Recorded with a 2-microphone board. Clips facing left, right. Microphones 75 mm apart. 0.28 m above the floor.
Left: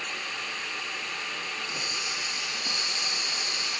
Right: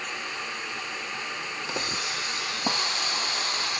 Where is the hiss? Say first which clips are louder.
Right 3 dB; 65° right (ahead or behind).